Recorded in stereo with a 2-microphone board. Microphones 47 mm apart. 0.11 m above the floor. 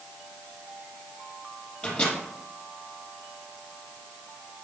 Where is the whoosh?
No whoosh in this recording.